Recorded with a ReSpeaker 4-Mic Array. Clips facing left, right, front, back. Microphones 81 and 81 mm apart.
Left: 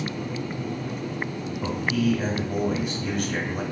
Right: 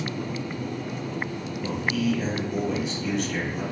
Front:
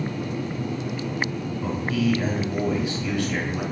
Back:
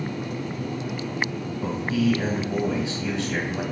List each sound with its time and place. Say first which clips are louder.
1.6 s a man speaking: left 2 dB, back 1 dB; 120° left, 1.7 m